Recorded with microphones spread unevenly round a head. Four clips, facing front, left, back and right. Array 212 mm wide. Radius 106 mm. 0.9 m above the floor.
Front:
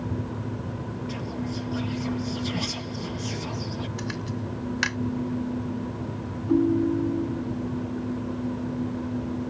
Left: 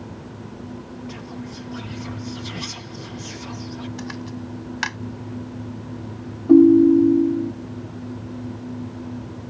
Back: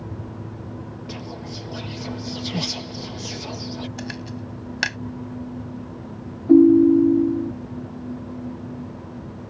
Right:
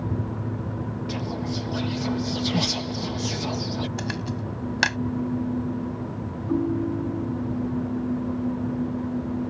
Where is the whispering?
130° right.